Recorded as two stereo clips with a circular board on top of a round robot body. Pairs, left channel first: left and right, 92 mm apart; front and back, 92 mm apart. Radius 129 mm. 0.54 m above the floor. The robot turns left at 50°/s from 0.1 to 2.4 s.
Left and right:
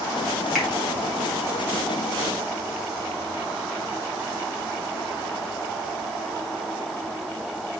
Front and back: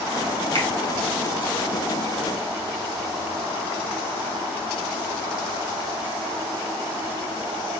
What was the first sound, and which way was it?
A finger snap, straight behind.